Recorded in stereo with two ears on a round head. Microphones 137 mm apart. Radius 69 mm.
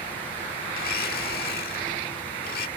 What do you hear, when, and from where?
0.7 s a blender: 65° left (ahead or behind)